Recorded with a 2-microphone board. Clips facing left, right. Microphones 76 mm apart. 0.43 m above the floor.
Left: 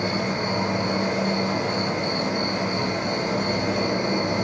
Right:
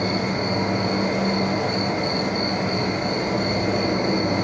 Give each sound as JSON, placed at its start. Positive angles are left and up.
{"t": 0.0, "sound": "an insect", "side_deg": -50, "distance_m": 2.0}